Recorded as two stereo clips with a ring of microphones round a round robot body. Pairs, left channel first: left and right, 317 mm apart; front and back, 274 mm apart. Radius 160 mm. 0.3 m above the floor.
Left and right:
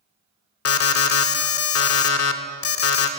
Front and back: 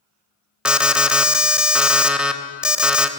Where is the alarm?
95° left, 0.8 m.